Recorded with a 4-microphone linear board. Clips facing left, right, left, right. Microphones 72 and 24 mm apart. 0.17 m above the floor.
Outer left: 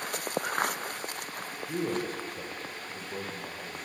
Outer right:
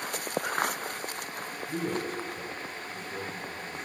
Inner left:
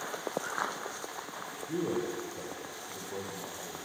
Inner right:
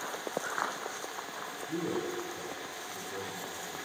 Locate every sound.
1.7 s a man speaking: 25° left (ahead or behind), 3.5 m; by 3.8 s 35° left (ahead or behind), 4.5 m